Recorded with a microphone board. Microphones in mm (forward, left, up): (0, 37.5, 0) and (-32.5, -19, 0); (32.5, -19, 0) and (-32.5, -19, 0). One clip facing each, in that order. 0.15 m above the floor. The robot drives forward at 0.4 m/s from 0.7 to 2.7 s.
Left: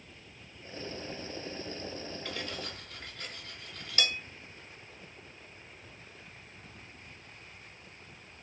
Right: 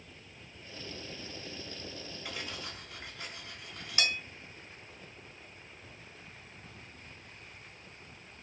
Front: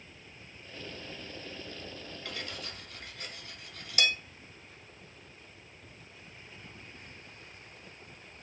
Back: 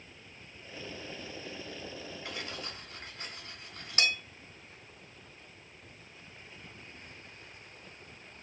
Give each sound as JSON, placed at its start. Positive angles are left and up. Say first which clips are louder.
{"t": 2.2, "sound": "cutlery clinking", "louder": "even, front 1 dB", "azimuth_deg": -165, "distance_m": 0.6}